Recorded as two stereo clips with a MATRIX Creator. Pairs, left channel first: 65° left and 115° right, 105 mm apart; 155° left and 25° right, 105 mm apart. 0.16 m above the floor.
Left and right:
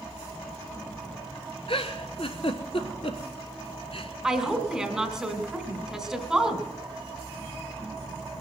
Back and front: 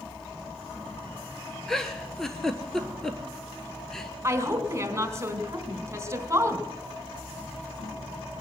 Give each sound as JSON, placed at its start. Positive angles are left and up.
{"t": 1.7, "sound": "a giggle", "azimuth_deg": 70, "distance_m": 1.2}
{"t": 4.2, "sound": "a woman speaking", "azimuth_deg": -35, "distance_m": 1.7}